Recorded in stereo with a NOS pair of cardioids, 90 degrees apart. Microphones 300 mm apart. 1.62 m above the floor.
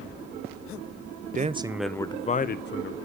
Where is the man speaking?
30° right, 0.7 m; by 3.0 s 45° left, 1.1 m.